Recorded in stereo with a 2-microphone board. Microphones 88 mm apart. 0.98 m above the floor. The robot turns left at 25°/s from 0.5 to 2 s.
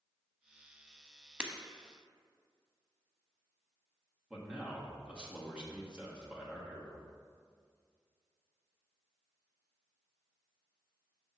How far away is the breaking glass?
About 0.7 m.